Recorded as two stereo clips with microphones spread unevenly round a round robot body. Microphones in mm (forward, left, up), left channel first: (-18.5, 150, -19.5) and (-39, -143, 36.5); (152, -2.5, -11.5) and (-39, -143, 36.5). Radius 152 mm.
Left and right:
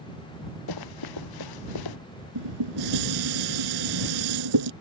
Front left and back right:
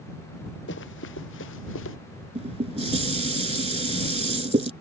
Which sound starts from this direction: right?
Dishes clattering, at 2.4 s.